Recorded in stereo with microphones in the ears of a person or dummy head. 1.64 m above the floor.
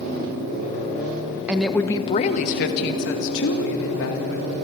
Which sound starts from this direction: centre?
A woman speaking, at 1.5 s.